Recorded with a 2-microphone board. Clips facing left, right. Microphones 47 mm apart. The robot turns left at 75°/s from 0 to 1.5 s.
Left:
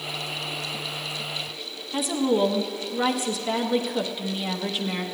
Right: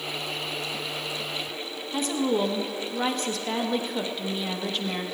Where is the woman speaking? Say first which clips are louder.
Left 2 dB; 5° left (ahead or behind), 0.9 m.